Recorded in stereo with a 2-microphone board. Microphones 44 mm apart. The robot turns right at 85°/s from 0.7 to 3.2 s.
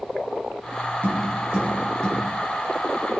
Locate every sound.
1.0 s tapping: 60° right (ahead or behind), 4.5 m; by 2.2 s 35° left (ahead or behind), 4.5 m